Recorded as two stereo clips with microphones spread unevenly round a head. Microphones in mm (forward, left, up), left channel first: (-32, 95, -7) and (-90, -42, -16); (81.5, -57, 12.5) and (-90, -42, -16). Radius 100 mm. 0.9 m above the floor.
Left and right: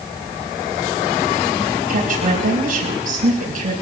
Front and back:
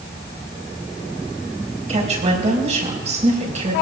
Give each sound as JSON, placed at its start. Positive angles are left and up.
{"t": 1.9, "sound": "a woman speaking", "azimuth_deg": -135, "distance_m": 5.0}